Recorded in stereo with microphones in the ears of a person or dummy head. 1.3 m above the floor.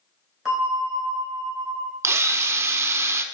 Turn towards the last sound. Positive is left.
turn(degrees=-15)  # may be behind; listen again after turning